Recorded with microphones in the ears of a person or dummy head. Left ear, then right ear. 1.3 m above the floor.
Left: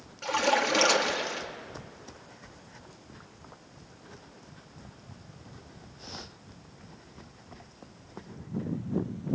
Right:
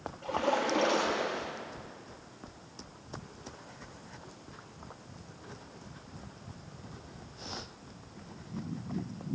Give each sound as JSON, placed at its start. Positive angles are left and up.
{"t": 0.2, "sound": "a splash", "side_deg": 60, "distance_m": 3.0}